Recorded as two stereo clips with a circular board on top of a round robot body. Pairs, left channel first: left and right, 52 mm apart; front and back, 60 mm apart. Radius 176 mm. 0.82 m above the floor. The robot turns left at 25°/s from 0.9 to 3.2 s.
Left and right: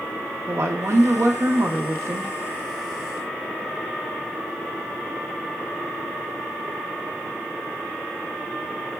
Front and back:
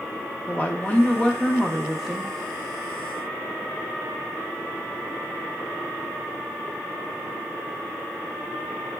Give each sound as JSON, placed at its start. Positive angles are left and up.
{"t": 0.5, "sound": "a woman speaking", "azimuth_deg": -65, "distance_m": 0.7}